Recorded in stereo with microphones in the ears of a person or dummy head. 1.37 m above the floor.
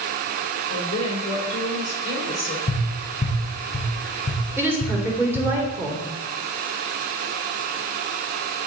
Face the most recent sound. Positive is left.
turn(degrees=-15)  # may be behind; listen again after turning